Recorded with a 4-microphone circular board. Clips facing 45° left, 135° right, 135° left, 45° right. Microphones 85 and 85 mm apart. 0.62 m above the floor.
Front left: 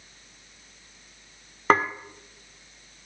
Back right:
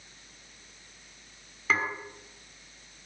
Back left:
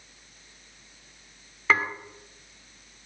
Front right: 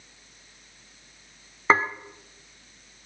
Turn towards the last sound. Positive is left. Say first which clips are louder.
# front left 8 dB, front right 3 dB
turn(degrees=15)